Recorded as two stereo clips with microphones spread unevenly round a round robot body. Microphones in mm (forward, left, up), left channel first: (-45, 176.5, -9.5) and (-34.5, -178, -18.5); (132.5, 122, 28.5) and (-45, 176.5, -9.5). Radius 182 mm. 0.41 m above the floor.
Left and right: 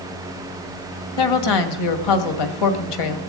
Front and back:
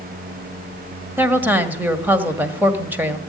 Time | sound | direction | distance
1.2 | a woman speaking | 90° left | 2 m